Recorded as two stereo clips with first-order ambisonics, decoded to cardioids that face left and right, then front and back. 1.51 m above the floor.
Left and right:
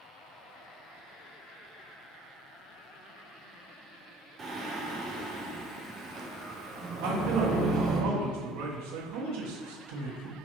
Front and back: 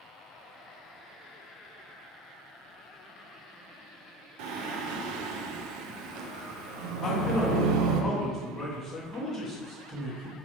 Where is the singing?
160° right, 0.5 m.